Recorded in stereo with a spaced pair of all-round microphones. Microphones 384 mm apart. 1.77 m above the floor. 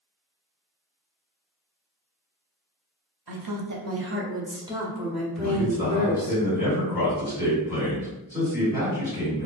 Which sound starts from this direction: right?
A woman speaking, at 3.3 s.